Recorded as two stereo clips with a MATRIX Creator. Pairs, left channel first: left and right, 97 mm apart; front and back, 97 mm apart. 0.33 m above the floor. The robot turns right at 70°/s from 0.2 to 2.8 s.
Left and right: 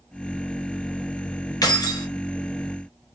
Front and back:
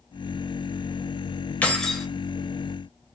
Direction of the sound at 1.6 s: 65° left.